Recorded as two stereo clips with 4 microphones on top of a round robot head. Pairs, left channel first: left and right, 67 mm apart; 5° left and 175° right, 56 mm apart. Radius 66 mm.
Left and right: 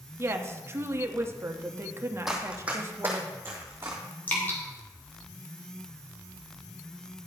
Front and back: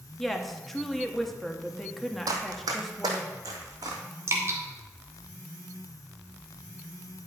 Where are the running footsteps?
Straight behind, 1.0 m; by 4.0 s 150° right, 1.9 m.